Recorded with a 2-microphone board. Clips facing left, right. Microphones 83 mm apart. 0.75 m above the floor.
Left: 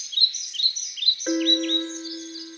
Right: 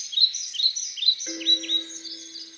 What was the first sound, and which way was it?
A piano, 50° left (ahead or behind).